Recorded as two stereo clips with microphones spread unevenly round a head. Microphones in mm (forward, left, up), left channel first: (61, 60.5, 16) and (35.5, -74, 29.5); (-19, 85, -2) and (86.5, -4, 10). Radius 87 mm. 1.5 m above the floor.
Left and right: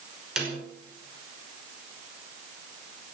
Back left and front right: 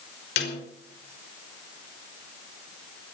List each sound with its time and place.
0.4 s a snare drum: 175° left, 5 m